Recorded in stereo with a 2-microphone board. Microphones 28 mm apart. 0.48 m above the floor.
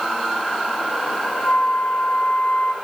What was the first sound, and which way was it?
A flute, 60° left (ahead or behind).